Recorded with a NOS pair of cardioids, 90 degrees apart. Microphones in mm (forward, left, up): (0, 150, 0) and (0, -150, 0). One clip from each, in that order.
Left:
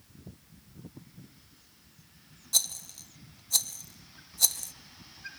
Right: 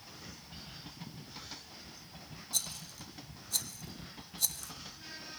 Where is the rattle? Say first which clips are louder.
Left 7 dB; 35° left, 0.6 m.